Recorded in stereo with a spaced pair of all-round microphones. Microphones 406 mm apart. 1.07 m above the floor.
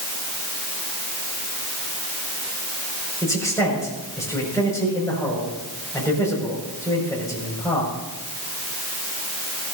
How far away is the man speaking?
About 6 m.